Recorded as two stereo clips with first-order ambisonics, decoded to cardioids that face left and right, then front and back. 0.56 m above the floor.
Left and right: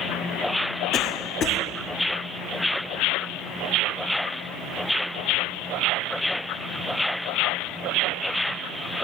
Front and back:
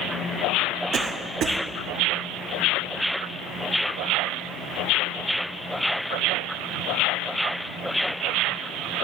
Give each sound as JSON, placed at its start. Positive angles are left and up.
{"t": 0.9, "sound": "a cough", "azimuth_deg": 140, "distance_m": 1.9}